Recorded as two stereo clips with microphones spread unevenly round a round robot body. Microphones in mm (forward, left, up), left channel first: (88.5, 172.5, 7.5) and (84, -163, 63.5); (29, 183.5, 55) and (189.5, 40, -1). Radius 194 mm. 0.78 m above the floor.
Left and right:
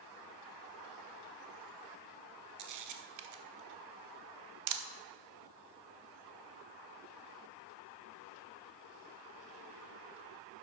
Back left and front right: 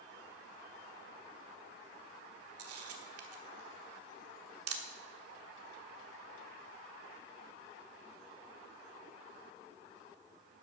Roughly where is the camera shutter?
Ahead right.